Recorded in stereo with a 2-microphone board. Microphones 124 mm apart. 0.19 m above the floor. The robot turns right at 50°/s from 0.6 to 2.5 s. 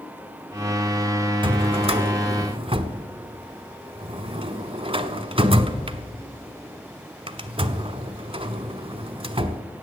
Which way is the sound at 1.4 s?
40° right (ahead or behind).